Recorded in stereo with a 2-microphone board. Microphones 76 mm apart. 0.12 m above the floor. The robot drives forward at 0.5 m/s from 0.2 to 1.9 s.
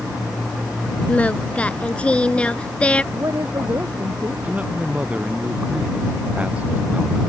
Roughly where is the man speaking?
Centre.